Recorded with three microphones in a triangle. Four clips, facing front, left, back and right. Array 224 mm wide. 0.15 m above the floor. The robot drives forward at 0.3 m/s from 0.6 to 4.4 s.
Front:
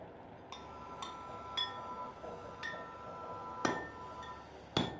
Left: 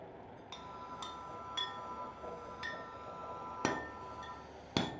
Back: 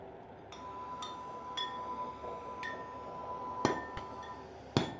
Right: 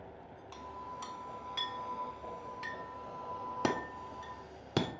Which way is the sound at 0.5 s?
10° right.